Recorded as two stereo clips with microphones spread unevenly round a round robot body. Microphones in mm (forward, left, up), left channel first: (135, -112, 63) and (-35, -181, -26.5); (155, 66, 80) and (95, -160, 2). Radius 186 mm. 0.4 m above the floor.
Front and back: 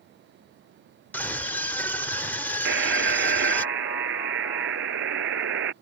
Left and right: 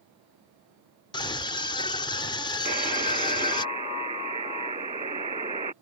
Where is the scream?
165° left.